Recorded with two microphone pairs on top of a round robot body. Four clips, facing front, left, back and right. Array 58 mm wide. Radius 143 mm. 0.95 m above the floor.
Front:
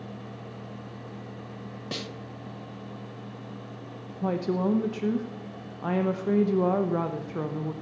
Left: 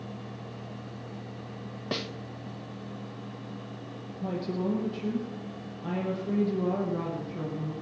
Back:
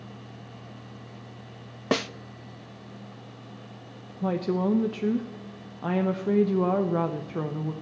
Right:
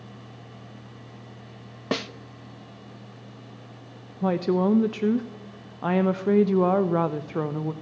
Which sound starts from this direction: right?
A woman speaking, at 4.2 s.